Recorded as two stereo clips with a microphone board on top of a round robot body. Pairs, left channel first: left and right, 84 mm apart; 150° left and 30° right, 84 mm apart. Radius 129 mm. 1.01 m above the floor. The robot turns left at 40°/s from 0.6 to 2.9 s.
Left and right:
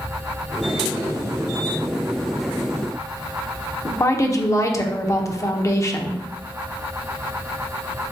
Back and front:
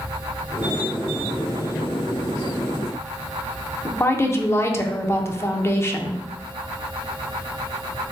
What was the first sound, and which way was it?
A woman speaking, 110° left.